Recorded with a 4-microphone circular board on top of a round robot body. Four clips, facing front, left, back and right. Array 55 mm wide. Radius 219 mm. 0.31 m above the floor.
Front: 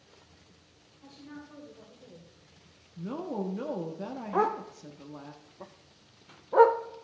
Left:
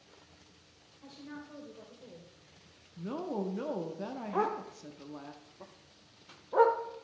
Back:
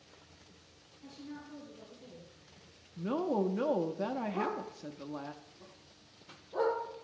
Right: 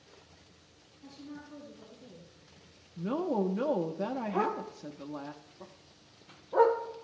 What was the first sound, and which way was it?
A woman speaking, 70° left.